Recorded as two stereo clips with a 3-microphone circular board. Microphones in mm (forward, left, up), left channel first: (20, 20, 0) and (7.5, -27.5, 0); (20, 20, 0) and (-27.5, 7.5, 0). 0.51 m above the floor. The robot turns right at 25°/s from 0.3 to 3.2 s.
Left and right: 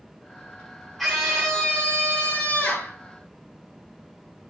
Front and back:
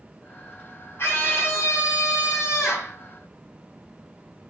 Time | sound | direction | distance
1.0 | a scream | 20° right | 4.5 m